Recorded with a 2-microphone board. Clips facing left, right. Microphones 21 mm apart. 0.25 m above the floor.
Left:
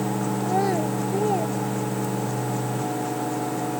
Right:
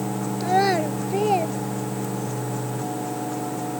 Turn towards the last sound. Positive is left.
turn(degrees=-40)  # may be behind; listen again after turning